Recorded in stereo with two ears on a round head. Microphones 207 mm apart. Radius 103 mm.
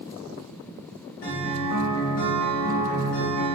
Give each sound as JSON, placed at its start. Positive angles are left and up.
{"t": 1.2, "sound": "a guitar", "side_deg": 70, "distance_m": 1.2}